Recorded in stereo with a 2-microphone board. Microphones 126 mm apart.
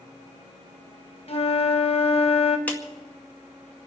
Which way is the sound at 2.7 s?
15° left (ahead or behind).